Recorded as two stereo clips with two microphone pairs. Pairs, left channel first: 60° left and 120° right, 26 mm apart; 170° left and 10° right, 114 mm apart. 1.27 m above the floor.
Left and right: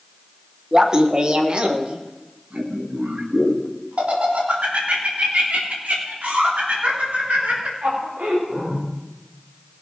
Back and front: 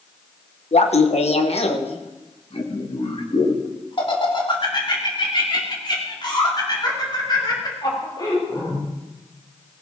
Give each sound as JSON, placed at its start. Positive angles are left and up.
{"t": 0.7, "sound": "laughter", "azimuth_deg": 175, "distance_m": 1.2}